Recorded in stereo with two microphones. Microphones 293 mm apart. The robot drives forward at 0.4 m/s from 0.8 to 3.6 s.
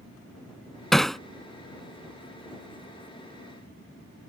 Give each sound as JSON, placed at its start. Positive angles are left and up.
{"t": 0.9, "sound": "hammering", "side_deg": 0}